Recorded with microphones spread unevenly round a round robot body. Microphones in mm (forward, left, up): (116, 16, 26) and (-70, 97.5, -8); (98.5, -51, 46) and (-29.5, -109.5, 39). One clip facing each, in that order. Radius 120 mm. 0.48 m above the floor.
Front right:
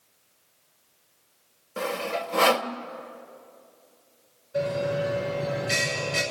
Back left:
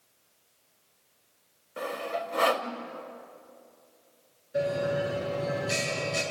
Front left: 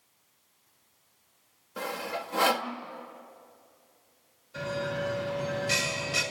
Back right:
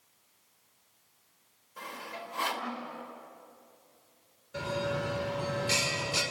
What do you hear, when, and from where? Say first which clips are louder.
1.8 s sawing: front right 4 dB, front left 8 dB; 15° left, 1.3 m
4.5 s a bell: front right 1 dB, even; 120° right, 5.5 m